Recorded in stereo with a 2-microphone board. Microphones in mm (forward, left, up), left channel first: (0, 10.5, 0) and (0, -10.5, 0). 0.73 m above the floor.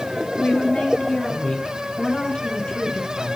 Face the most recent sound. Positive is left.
turn(degrees=40)  # may be behind; listen again after turning